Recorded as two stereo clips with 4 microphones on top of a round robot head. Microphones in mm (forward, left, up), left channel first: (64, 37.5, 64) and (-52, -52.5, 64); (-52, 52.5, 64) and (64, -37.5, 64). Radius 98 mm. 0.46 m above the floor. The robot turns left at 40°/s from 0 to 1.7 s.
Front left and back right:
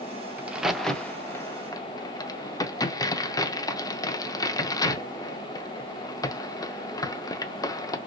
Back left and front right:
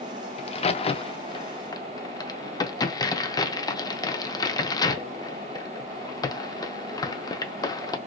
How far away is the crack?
About 0.6 m.